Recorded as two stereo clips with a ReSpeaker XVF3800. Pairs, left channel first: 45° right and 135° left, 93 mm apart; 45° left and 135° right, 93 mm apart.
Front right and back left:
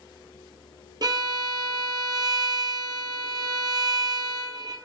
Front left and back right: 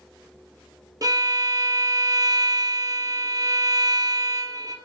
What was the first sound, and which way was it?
A violin, 175° left.